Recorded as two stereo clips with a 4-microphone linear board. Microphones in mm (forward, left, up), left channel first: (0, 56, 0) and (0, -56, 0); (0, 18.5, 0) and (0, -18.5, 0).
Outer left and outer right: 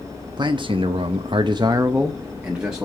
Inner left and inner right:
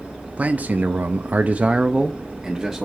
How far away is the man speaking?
About 0.9 m.